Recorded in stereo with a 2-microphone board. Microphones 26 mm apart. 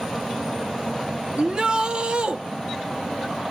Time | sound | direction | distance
1.4 | a shout | 40° right (ahead or behind) | 1.0 m